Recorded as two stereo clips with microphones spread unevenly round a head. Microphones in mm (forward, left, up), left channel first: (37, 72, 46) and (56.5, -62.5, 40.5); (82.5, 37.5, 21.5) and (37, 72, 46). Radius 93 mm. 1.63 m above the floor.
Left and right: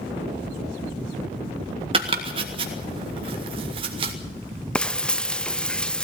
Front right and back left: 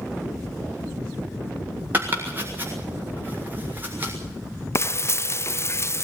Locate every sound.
1.9 s chopping: 140° right, 1.6 m
4.8 s frying: 15° left, 0.6 m